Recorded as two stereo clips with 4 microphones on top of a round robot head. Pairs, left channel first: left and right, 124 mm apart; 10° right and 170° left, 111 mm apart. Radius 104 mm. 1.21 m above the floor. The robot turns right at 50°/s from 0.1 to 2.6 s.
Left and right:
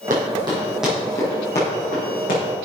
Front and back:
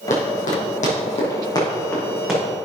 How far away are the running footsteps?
About 3 m.